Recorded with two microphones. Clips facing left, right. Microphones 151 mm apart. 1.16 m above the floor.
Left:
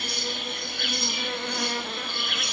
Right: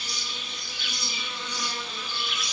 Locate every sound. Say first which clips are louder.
0.0 s an insect: left 8 dB; 60° left (ahead or behind), 1.3 m